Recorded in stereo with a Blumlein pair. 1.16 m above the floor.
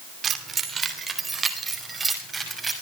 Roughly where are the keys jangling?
Ahead.